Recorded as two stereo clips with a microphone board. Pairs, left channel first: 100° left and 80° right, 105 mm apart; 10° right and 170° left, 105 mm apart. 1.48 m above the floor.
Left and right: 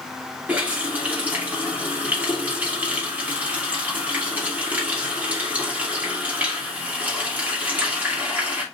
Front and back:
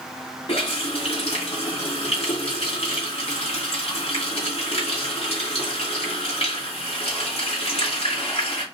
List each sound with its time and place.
0.5 s a running tap: 5° right, 2.5 m